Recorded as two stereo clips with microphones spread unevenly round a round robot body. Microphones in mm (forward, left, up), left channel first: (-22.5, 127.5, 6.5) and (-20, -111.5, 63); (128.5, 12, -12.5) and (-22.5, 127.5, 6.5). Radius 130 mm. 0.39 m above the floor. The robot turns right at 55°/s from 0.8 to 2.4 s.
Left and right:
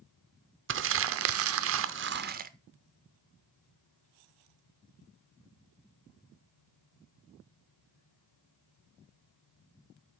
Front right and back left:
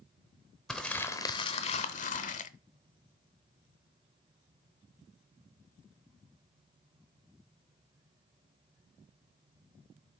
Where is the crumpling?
120° right, 0.7 m; by 2.5 s 35° right, 0.7 m.